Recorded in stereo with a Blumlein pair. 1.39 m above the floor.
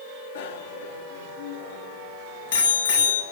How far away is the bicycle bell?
About 2 m.